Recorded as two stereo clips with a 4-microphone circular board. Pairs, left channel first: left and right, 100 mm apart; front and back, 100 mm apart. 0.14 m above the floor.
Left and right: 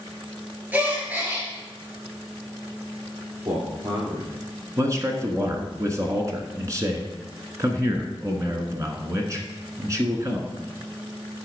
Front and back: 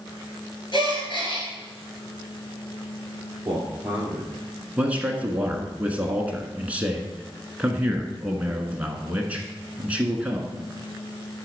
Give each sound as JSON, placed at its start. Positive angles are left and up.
{"t": 0.7, "sound": "a gasp", "azimuth_deg": -20, "distance_m": 2.5}
{"t": 3.5, "sound": "a man speaking", "azimuth_deg": -110, "distance_m": 3.0}
{"t": 4.8, "sound": "a man speaking", "azimuth_deg": -115, "distance_m": 1.3}